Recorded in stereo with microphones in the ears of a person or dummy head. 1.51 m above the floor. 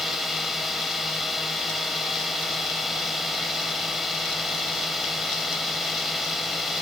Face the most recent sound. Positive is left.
turn(degrees=0)  # may be behind; listen again after turning